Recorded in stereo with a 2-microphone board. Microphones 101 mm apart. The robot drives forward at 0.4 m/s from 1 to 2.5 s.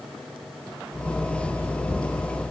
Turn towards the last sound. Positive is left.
No sound to turn to.